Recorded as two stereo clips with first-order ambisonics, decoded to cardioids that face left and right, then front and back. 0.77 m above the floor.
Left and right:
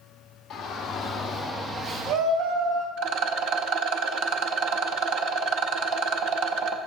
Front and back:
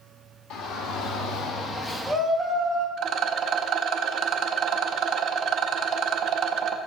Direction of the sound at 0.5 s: 25° left.